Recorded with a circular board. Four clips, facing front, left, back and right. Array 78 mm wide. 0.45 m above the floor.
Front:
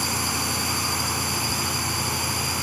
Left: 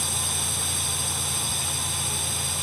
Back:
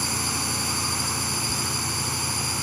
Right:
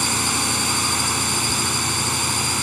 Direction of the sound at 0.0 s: 85° right.